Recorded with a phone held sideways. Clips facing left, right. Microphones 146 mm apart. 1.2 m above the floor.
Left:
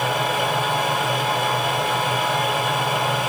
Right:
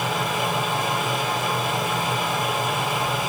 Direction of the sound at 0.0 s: 80° left.